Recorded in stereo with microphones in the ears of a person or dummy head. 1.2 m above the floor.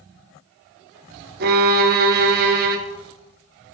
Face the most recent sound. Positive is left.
turn(degrees=-55)  # may be behind; listen again after turning